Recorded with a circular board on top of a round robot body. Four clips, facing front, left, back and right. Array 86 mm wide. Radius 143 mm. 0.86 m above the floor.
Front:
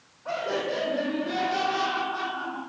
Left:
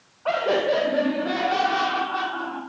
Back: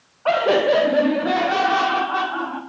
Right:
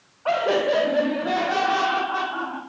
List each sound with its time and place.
0.2 s laughter: 170° right, 0.8 m; by 2.6 s 165° right, 1.9 m